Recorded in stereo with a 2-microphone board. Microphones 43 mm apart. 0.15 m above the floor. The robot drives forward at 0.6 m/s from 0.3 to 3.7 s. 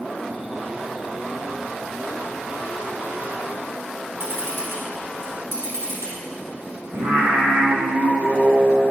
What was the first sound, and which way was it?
A camera shutter, 70° right (ahead or behind).